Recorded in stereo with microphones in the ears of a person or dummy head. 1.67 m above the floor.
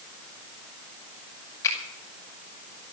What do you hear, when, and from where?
1.6 s a finger snap: 25° left (ahead or behind), 6 m